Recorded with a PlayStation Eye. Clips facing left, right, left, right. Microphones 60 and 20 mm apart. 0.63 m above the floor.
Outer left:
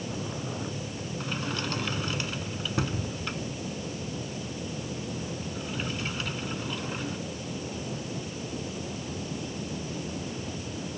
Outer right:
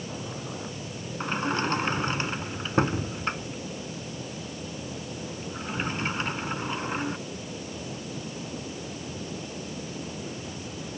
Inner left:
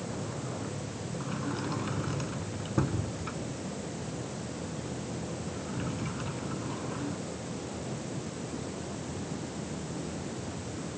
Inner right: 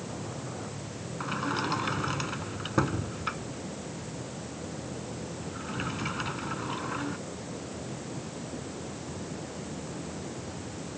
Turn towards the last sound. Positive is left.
turn(degrees=-35)  # may be behind; listen again after turning